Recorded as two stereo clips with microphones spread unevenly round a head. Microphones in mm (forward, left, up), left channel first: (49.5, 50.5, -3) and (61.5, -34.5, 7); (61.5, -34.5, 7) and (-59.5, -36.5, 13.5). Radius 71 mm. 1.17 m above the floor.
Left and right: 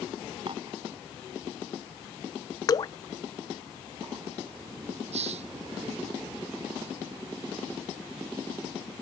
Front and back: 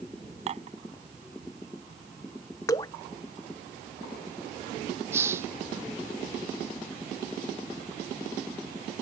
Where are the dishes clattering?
140° right.